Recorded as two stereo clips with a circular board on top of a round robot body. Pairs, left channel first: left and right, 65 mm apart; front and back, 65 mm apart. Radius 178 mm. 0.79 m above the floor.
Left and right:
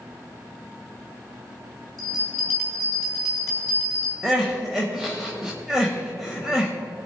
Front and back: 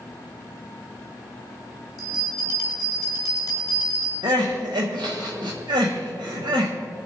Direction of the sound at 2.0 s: 10° left.